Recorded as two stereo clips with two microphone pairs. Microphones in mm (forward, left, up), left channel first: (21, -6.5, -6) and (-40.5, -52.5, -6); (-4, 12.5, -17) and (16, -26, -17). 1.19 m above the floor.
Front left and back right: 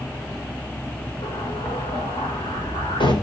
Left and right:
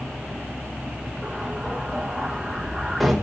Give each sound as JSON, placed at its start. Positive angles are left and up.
{"t": 1.2, "sound": "an explosion", "azimuth_deg": 25, "distance_m": 4.5}